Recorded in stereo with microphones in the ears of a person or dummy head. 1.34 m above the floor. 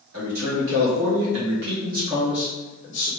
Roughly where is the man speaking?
Right.